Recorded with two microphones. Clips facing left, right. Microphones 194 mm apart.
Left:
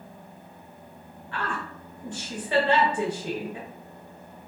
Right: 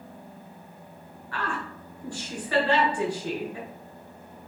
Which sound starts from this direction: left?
A woman speaking, at 1.3 s.